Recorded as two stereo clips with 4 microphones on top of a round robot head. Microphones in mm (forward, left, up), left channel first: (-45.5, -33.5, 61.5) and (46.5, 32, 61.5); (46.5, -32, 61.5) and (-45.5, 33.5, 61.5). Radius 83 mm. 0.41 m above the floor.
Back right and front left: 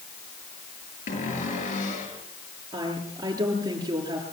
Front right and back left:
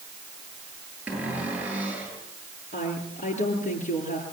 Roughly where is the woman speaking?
Ahead right.